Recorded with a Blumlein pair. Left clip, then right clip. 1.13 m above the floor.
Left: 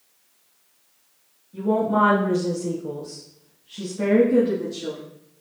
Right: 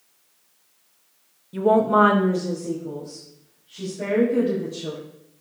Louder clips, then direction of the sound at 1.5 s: Right 4 dB; 45° right.